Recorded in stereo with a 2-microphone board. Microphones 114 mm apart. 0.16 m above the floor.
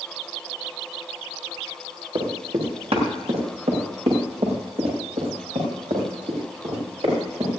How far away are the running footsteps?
About 4.5 m.